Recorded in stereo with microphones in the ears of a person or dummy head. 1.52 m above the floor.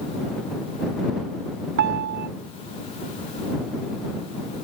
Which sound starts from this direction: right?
A piano, at 1.8 s.